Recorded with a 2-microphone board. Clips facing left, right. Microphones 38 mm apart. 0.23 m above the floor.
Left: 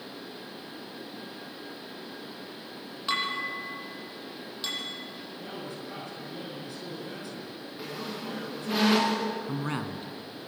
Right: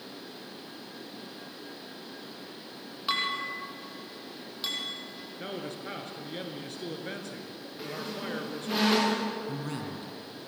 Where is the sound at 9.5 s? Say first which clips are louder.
Left 3 dB; 40° left (ahead or behind), 2.5 m.